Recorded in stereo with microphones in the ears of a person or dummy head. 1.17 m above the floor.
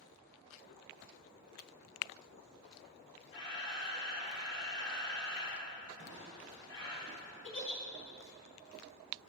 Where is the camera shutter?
20° left (ahead or behind), 2 m.